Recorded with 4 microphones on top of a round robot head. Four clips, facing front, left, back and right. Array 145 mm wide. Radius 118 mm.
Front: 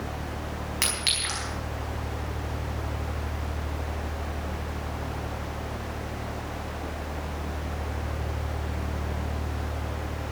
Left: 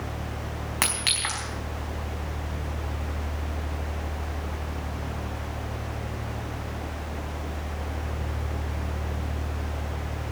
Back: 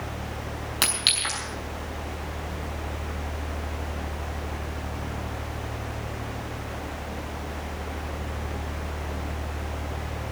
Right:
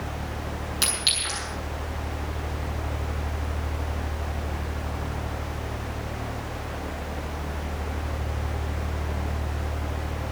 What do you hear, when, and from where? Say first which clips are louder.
0.8 s a clink: left 1 dB, back 2 dB; 110° left, 4.5 m